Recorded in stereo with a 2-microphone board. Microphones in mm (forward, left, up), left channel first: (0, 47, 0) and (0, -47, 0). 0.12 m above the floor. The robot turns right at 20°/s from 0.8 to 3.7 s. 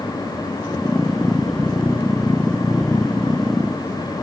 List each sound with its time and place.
Only background noise.